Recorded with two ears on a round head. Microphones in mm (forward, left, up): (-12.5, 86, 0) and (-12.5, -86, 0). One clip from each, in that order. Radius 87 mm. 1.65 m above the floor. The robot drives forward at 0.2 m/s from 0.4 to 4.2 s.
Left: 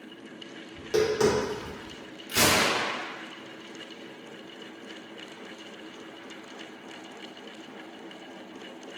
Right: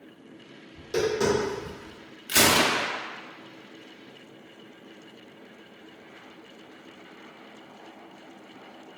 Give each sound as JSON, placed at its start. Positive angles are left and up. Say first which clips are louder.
{"t": 0.7, "sound": "tapping", "louder": "left 1 dB", "side_deg": 50, "distance_m": 1.4}
{"t": 2.3, "sound": "a gunshot", "louder": "right 2 dB", "side_deg": -60, "distance_m": 0.6}